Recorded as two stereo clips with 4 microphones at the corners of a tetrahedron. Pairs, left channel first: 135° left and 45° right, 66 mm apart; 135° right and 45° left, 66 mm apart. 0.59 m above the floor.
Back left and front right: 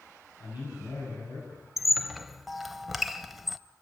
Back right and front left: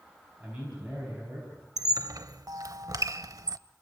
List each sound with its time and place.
0.4 s a man speaking: 120° left, 5 m
1.8 s a squeak: 45° left, 0.6 m